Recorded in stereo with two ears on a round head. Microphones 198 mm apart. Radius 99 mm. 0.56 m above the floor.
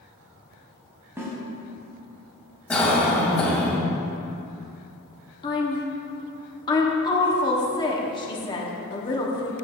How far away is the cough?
About 3 m.